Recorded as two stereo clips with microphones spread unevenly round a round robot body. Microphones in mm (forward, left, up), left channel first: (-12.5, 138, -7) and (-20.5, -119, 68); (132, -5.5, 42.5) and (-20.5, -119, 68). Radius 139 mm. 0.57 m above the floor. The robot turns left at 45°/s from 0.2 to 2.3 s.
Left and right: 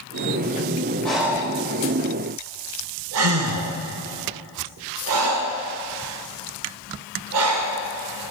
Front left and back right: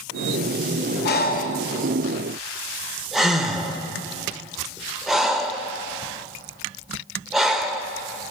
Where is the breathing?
Straight ahead, 0.7 m; by 7.8 s 55° right, 0.7 m.